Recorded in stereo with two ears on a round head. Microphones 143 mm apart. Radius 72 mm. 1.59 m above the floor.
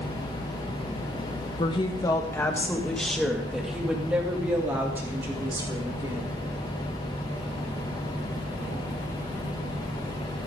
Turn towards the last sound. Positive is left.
turn(degrees=-20)  # may be behind; listen again after turning